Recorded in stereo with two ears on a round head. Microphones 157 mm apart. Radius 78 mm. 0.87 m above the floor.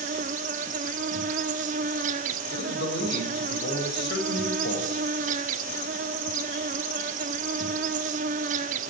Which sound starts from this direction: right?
An insect, at 0.0 s.